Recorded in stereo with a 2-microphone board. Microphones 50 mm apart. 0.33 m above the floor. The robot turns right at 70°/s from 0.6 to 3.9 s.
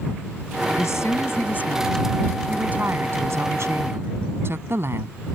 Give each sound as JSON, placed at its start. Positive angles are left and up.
{"t": 0.8, "sound": "a woman speaking", "azimuth_deg": 80}